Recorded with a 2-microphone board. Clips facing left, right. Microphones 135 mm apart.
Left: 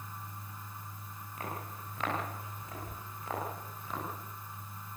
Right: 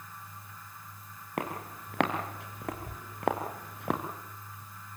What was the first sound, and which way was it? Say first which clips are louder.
Footsteps: right 6 dB; 75° right (ahead or behind).